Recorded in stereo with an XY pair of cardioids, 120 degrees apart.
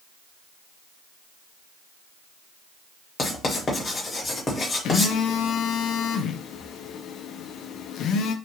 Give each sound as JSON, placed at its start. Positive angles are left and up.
{"t": 3.2, "sound": "writing", "azimuth_deg": 30, "distance_m": 1.3}
{"t": 4.8, "sound": "a phone buzzing", "azimuth_deg": 65, "distance_m": 0.5}